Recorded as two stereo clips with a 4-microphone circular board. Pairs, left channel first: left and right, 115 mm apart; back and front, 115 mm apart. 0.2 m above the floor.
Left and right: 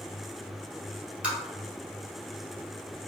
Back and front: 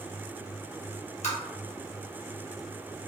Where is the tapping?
170° right, 1.6 m.